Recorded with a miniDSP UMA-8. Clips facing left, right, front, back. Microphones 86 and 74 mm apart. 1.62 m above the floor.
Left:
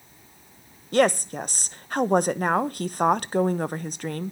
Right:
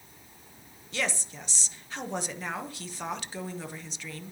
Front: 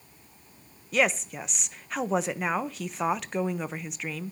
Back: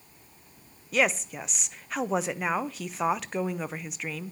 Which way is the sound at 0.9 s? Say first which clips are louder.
Left 13 dB, even; 90° left.